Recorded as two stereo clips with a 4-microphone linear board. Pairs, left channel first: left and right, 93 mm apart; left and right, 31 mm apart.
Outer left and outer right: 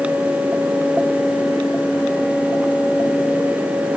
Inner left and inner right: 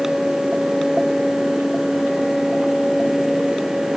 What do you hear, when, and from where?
Only background noise.